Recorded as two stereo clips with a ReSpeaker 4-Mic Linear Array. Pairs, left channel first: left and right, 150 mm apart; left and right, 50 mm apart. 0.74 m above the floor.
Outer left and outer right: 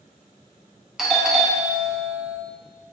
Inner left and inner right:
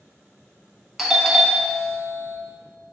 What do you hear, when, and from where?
1.0 s a doorbell: centre (ahead or behind), 1.0 m